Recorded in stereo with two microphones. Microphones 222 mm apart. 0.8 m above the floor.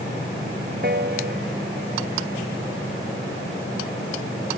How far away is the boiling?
I don't hear boiling.